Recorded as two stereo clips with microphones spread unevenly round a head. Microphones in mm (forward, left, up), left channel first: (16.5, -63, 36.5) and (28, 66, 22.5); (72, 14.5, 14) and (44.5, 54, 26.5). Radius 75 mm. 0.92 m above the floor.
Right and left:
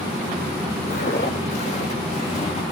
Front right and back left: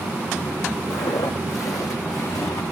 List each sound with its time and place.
0.9 s footsteps: 75° right, 1.5 m; by 2.6 s 55° right, 2.5 m